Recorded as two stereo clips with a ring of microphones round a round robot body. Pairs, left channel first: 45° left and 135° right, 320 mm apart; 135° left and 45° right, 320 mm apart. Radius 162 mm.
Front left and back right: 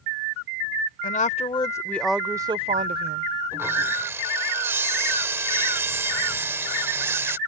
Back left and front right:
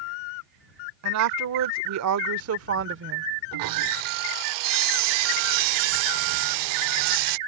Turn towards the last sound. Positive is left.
turn(degrees=-55)